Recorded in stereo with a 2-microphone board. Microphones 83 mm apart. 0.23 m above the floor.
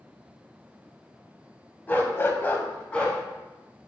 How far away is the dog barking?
About 0.6 m.